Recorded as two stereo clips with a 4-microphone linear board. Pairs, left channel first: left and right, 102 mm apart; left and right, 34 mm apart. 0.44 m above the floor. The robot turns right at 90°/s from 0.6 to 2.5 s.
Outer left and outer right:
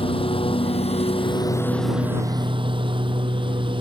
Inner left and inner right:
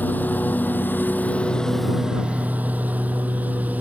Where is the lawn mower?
65° left; by 3.8 s 125° right.